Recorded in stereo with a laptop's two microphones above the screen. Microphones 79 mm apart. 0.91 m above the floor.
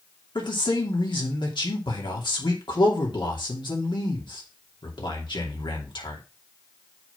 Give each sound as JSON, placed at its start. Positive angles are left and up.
{"t": 0.3, "sound": "a man speaking", "side_deg": 70, "distance_m": 2.5}